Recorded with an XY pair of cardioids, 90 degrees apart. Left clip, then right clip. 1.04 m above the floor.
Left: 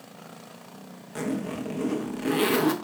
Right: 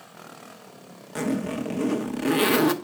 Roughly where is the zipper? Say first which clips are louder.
Right 3 dB; ahead right.